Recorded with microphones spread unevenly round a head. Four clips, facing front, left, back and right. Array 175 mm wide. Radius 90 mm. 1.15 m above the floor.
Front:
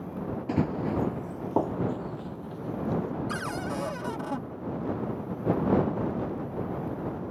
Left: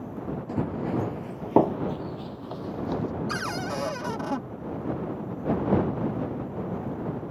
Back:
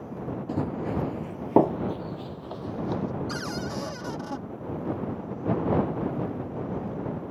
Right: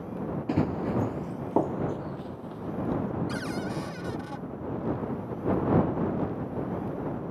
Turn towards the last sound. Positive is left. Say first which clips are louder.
# left 2 dB, even
turn(degrees=75)